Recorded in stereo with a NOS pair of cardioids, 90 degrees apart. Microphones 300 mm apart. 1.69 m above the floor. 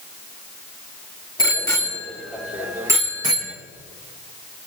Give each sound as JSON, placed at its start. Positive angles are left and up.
{"t": 1.4, "sound": "a bicycle bell", "azimuth_deg": 15, "distance_m": 3.0}